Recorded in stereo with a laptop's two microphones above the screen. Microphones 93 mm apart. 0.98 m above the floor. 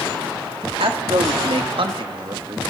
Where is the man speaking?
75° right (ahead or behind), 2.5 m; by 2.6 s 45° right (ahead or behind), 1.7 m.